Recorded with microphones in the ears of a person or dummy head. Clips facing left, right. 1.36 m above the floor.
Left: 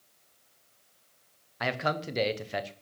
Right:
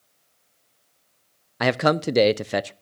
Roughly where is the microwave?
No microwave in this recording.